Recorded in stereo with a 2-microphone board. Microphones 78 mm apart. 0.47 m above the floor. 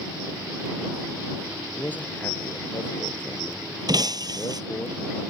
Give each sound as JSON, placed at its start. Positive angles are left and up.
{"t": 1.8, "sound": "a man speaking", "side_deg": 20}
{"t": 3.9, "sound": "breaking glass", "side_deg": -55}